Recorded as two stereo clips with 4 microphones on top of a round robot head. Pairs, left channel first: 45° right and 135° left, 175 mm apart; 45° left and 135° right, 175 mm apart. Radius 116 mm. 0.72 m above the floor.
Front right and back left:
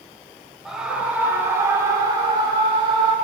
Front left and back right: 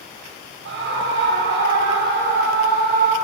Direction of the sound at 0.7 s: 140° right.